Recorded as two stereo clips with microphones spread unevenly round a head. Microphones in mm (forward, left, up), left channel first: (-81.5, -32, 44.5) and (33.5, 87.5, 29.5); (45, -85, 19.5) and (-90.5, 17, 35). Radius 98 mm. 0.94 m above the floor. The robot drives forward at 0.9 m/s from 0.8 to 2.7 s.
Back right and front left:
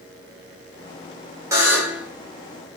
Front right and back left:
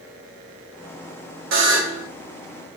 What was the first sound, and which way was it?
A buzzer, 120° left.